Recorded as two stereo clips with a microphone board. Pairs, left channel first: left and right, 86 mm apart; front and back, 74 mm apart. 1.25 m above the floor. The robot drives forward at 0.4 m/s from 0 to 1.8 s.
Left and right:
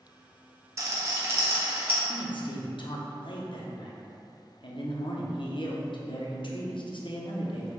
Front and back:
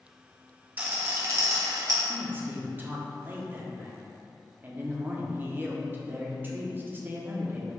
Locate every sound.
0.8 s a rattle: 120° right, 0.6 m; by 2.0 s 150° right, 0.9 m
2.1 s a man speaking: 115° left, 0.6 m